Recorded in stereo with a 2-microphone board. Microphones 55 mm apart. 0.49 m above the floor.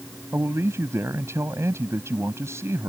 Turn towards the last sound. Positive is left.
turn(degrees=-60)  # may be behind; listen again after turning